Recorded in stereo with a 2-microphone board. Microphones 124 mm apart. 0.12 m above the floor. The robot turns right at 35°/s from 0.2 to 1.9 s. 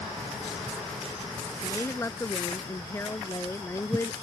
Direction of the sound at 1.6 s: 25° left (ahead or behind).